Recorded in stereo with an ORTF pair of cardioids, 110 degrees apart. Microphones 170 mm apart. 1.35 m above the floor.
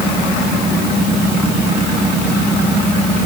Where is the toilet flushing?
I don't hear a toilet flushing.